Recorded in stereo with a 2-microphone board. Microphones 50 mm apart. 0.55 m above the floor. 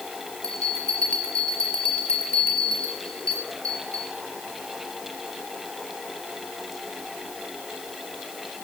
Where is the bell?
20° left (ahead or behind), 4 m.